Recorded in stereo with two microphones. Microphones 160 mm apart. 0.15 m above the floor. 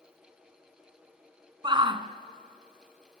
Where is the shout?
30° right (ahead or behind), 1.5 m.